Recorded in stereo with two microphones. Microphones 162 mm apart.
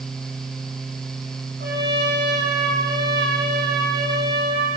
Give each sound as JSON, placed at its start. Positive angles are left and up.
{"t": 1.6, "sound": "a trumpet", "side_deg": -80, "distance_m": 7.0}